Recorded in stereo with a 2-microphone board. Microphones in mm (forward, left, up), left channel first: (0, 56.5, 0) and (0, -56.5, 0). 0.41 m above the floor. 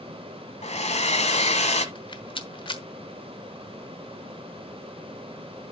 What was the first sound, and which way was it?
A hair dryer, 80° left.